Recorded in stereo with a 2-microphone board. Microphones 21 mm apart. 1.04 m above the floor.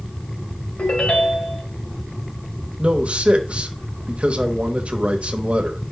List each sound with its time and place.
0.8 s a ringtone: 80° left, 2.5 m
2.8 s a man speaking: 70° right (ahead or behind), 1.1 m